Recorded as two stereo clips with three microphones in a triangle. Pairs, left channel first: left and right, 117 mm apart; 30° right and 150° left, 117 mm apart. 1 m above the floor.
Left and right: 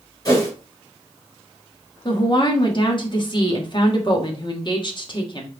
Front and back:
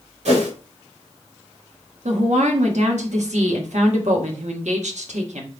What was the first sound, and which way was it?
A whoosh, 145° left.